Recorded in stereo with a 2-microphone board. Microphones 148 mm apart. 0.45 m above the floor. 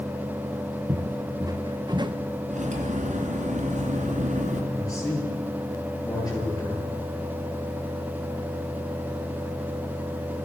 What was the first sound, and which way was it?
Footsteps, 20° right (ahead or behind).